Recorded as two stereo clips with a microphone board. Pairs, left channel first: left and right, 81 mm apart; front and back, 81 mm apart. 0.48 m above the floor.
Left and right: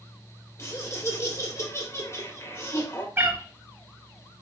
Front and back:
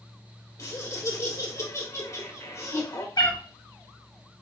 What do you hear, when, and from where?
0.6 s laughter: 45° left, 1.3 m
3.2 s a cat meowing: 30° right, 1.4 m